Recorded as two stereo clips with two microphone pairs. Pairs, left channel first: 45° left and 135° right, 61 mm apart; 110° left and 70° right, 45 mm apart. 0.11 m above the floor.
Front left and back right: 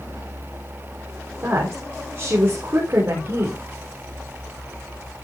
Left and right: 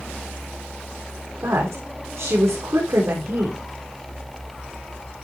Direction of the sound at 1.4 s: 90° right.